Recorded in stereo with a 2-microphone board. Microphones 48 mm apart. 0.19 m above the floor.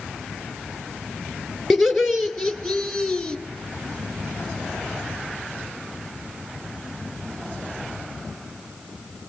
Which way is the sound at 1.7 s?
10° right (ahead or behind).